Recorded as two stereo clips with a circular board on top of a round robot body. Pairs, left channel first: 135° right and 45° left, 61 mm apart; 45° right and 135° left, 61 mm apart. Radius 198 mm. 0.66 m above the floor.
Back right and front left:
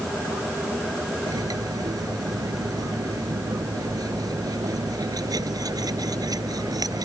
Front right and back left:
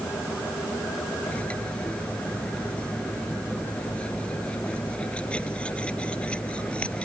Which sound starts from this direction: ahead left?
Cutlery clinking, at 1.2 s.